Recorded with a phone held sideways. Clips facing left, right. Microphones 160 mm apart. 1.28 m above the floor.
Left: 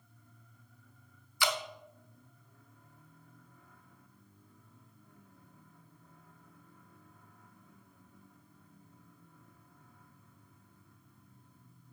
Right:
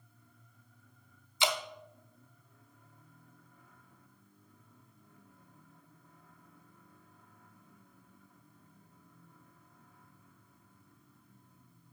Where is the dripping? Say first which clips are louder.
Right 1 dB; 20° right (ahead or behind), 1.0 m.